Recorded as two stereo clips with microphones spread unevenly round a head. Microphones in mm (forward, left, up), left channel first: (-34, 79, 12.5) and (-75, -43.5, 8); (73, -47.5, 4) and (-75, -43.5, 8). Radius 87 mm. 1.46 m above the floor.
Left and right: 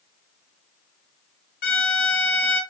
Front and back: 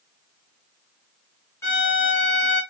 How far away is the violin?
About 0.7 m.